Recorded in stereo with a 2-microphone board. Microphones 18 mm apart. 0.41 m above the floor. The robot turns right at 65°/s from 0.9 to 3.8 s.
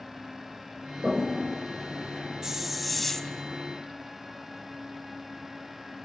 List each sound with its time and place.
1.0 s a toilet flushing: 60° right (ahead or behind), 7 m; by 2.6 s 40° left (ahead or behind), 7 m
2.4 s a hiss: 30° right, 0.7 m; by 3.3 s 30° left, 0.7 m